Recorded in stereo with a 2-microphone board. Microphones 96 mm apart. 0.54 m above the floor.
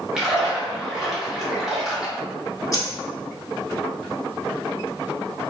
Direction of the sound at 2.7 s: 35° left (ahead or behind).